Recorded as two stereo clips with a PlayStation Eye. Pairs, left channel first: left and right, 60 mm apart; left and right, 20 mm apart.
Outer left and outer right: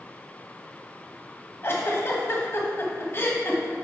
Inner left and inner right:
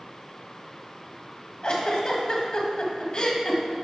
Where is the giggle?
45° left (ahead or behind), 1.4 m.